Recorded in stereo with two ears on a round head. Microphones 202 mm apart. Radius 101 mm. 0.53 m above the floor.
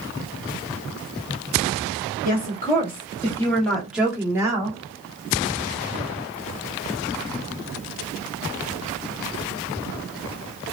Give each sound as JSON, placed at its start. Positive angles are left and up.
{"t": 2.2, "sound": "a woman speaking", "side_deg": 35, "distance_m": 1.2}